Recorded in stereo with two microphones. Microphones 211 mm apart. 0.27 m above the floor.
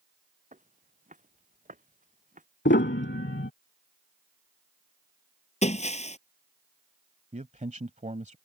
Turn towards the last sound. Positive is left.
turn(degrees=-35)  # may be behind; listen again after turning